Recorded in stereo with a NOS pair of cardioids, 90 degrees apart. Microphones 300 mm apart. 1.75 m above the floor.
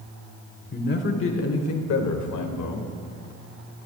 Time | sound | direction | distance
0.7 | a man speaking | 30° left | 1.4 m